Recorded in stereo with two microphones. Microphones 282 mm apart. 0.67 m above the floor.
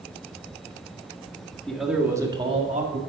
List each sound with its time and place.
1.7 s a man speaking: 5° left (ahead or behind), 1.8 m; by 3.0 s 30° right (ahead or behind), 1.8 m